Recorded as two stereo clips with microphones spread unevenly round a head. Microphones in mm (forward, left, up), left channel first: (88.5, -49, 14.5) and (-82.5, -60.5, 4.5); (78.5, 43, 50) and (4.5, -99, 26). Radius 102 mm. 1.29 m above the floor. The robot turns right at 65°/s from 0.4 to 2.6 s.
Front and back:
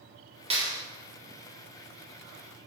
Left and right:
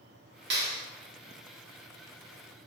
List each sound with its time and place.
0.5 s a clap: 120° right, 3 m; by 0.8 s 100° right, 3 m